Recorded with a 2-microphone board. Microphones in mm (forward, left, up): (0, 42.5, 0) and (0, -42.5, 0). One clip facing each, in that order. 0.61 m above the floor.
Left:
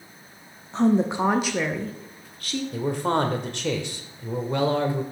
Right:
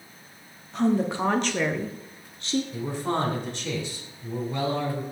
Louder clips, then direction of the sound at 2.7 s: Left 4 dB; 65° left (ahead or behind).